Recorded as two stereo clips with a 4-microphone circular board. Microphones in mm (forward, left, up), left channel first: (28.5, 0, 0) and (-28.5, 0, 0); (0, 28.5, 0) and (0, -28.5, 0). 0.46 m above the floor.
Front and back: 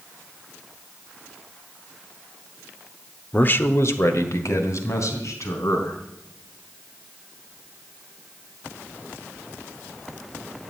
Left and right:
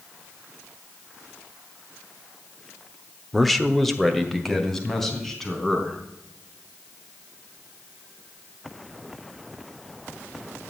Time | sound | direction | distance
3.3 | a man speaking | straight ahead | 0.8 m